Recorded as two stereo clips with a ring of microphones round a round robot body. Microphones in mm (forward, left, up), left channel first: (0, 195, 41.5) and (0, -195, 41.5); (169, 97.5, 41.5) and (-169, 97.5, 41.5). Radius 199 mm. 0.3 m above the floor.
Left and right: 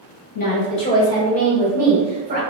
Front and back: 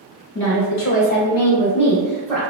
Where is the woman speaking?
30° left, 1.7 m; by 2.4 s 85° right, 1.3 m.